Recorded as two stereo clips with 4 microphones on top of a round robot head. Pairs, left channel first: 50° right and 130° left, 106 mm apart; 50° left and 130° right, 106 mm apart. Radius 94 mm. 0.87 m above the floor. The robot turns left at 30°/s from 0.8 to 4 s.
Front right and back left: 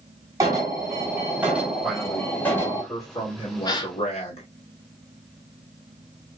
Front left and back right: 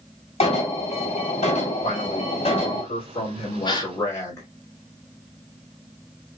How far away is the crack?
No crack in this recording.